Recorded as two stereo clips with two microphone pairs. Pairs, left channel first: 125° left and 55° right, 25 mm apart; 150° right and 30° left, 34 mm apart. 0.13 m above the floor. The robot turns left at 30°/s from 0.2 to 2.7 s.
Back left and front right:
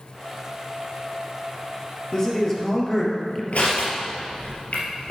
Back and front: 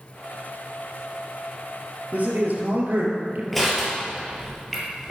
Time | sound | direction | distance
2.1 | a man speaking | 65° left | 3 m
3.5 | crushing | 125° left | 3.5 m